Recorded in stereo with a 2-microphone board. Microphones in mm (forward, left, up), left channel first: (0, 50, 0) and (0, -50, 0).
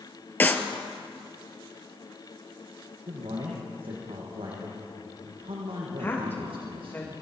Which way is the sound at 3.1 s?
65° right (ahead or behind).